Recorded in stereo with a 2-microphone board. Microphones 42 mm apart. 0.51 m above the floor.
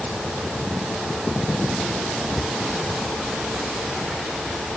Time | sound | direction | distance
2.4 | a cupboard door | 10° right (ahead or behind) | ?